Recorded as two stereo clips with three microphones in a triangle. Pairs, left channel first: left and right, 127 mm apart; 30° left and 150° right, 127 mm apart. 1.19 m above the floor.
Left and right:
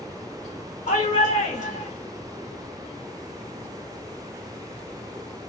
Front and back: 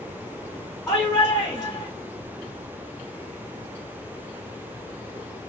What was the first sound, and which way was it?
A shout, 110° left.